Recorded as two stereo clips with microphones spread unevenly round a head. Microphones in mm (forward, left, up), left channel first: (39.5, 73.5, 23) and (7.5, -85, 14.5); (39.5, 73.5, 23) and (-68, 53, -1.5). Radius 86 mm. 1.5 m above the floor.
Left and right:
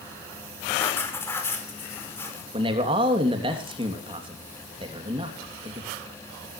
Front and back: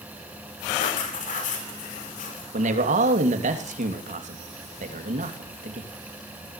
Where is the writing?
5° left, 5 m.